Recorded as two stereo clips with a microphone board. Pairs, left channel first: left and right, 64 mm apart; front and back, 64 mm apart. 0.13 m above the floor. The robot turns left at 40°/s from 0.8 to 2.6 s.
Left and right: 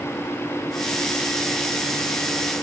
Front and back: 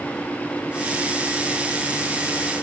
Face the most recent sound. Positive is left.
No sound to turn to.